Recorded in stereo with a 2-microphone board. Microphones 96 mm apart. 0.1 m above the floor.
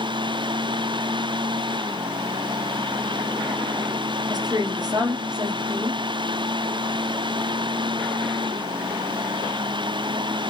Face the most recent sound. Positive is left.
turn(degrees=-45)  # may be behind; listen again after turning